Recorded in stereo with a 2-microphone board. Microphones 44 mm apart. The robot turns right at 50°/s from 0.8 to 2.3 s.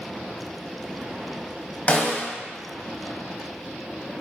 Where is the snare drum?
35° left (ahead or behind), 0.9 m.